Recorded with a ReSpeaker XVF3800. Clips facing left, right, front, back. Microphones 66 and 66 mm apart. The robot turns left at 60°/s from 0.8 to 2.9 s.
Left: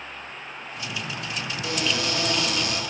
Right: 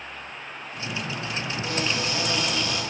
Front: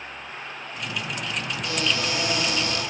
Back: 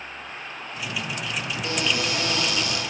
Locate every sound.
1.6 s a cupboard door: 120° left, 9.5 m; by 2.8 s 50° left, 9.5 m